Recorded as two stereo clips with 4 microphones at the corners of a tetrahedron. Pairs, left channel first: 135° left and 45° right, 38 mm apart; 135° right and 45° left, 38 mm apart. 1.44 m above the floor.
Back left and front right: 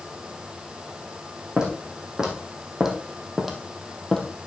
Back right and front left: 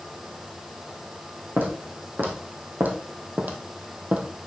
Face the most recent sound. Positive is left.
turn(degrees=60)